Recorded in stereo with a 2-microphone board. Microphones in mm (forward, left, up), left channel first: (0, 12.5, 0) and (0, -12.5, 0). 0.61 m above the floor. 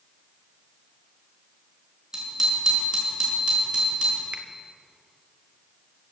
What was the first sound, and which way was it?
A bicycle bell, 30° right (ahead or behind).